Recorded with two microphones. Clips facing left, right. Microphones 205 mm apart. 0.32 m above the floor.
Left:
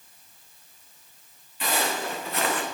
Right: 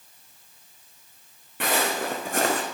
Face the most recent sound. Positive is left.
turn(degrees=-40)  # may be behind; listen again after turning